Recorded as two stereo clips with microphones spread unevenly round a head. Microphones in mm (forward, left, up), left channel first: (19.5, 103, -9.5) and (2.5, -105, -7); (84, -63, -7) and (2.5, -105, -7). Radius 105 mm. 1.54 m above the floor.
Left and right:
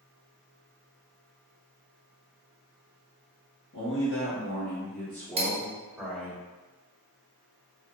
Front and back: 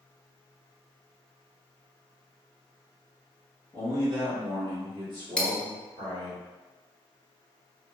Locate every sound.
3.7 s a man speaking: 115° left, 1.1 m; by 6.4 s 175° right, 1.4 m
5.4 s cutlery clinking: 50° right, 0.9 m